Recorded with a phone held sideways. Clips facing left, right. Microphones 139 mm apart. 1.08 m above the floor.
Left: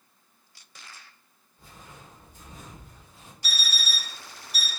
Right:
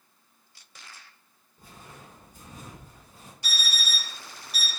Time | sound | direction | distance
1.6 | footsteps | 45° right (ahead or behind) | 1.9 m
3.4 | an alarm clock | 65° right (ahead or behind) | 1.2 m